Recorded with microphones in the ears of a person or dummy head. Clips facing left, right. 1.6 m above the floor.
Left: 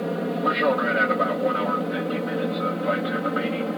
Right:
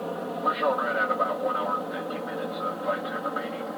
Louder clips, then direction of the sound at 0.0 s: Left 5 dB; 30° left (ahead or behind).